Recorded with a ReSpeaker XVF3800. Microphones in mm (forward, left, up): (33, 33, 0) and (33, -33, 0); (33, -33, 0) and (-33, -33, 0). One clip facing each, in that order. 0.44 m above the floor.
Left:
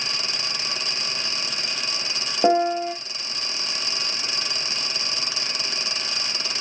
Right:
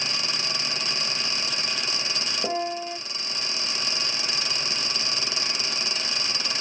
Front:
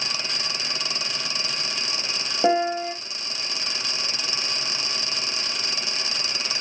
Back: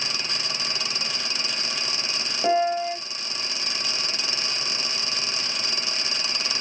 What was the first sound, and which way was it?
A piano, 60° left.